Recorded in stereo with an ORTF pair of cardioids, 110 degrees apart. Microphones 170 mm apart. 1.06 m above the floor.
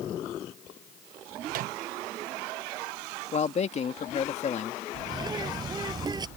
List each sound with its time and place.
1.5 s a microwave: 60° right
3.3 s a man speaking: 40° left
5.1 s a bird: 25° right